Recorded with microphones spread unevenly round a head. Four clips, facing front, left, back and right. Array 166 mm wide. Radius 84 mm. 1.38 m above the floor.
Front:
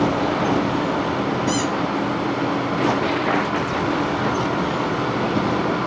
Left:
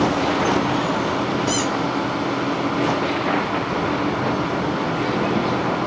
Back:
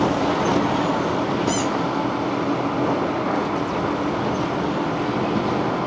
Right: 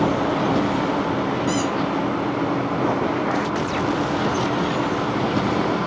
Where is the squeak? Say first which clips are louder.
Even, even; 135° right, 1.5 m.